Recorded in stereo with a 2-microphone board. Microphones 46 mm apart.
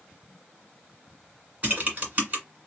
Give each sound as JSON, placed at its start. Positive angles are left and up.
{"t": 1.6, "sound": "typing on a keyboard", "side_deg": -35, "distance_m": 1.7}